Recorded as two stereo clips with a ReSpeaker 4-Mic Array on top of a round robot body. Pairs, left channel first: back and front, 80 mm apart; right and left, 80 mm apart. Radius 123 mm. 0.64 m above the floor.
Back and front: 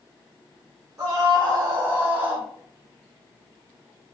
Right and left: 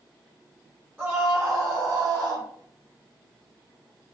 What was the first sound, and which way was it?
A scream, 25° left.